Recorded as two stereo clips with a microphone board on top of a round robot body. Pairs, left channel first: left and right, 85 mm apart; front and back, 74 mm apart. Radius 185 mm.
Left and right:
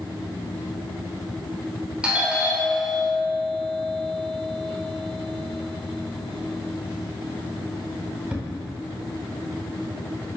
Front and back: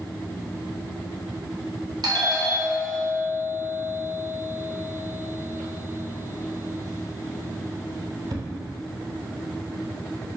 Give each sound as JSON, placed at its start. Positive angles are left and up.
{"t": 2.0, "sound": "a doorbell", "azimuth_deg": -165, "distance_m": 3.5}